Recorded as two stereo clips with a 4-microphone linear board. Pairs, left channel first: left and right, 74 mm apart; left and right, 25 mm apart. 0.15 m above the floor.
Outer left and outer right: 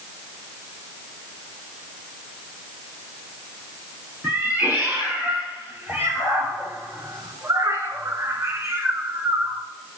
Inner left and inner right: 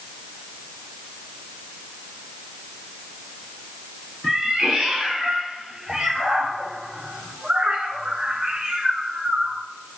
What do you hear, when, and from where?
4.2 s a cat meowing: 30° right (ahead or behind), 2.5 m; by 9.6 s 15° right (ahead or behind), 1.1 m